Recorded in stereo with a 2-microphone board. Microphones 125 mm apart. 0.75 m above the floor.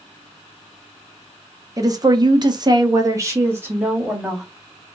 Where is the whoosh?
I don't hear a whoosh.